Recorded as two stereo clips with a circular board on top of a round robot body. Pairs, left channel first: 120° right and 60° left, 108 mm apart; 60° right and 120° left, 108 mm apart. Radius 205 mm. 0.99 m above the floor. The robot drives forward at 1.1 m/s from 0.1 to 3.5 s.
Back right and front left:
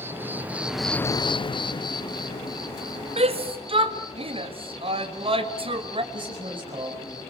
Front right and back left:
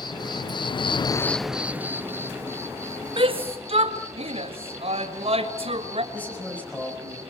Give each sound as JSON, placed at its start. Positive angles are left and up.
{"t": 0.0, "sound": "an insect", "azimuth_deg": -10, "distance_m": 1.2}
{"t": 3.2, "sound": "a shout", "azimuth_deg": 80, "distance_m": 2.0}
{"t": 6.1, "sound": "a man speaking", "azimuth_deg": 15, "distance_m": 6.0}